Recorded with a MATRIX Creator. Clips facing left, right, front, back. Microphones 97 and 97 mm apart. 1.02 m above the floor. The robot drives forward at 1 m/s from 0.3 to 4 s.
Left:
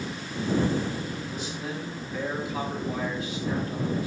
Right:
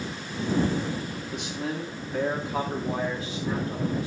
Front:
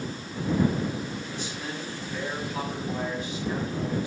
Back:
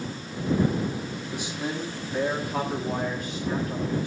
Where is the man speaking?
105° right, 1.5 m; by 4.1 s 155° right, 3.5 m.